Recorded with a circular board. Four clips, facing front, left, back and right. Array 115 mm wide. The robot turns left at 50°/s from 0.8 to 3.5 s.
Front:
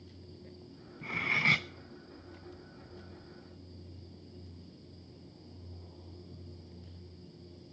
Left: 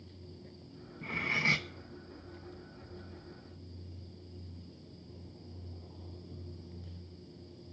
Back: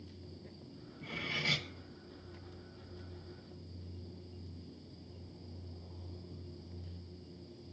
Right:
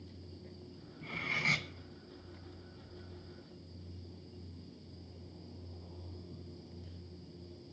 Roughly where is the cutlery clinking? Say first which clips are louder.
Left 4 dB, front 7 dB; ahead left.